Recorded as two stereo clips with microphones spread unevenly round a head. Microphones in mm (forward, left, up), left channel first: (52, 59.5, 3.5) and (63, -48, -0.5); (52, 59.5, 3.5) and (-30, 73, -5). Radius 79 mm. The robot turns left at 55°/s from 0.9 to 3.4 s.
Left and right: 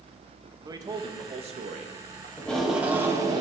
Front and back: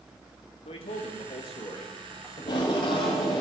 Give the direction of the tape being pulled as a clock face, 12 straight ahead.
11 o'clock.